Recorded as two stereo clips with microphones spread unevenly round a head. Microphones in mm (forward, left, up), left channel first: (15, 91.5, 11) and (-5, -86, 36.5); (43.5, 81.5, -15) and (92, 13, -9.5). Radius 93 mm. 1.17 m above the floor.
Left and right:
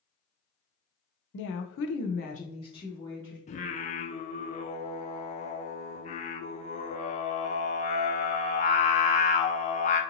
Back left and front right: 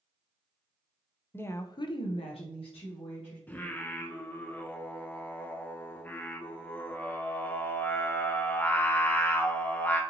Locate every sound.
1.3 s a woman speaking: 55° left, 0.7 m; by 3.4 s 160° left, 1.3 m
3.5 s singing: 65° left, 0.6 m